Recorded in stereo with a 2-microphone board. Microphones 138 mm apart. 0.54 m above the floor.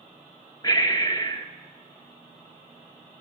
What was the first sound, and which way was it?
Breathing, 25° left (ahead or behind).